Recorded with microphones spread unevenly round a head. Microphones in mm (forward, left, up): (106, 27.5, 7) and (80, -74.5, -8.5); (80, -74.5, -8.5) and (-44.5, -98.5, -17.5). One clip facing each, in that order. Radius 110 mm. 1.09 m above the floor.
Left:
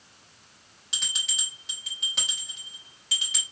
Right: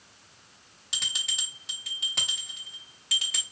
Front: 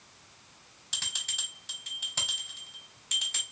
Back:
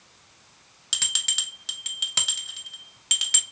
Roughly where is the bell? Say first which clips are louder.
Left 1 dB, back 5 dB; behind.